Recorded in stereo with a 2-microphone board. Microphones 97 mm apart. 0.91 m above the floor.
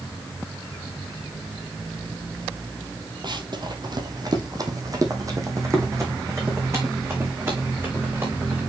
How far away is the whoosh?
I don't hear a whoosh.